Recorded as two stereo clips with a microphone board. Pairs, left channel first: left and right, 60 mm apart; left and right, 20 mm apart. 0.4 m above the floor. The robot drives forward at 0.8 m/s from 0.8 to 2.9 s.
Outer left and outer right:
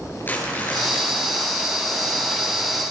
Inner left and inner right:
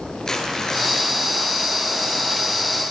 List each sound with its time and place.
0.2 s crumpling: 30° left (ahead or behind), 7.5 m; by 2.9 s 25° left (ahead or behind), 9 m